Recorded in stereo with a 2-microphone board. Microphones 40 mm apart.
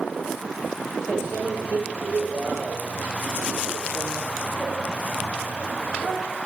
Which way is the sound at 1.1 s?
20° right (ahead or behind).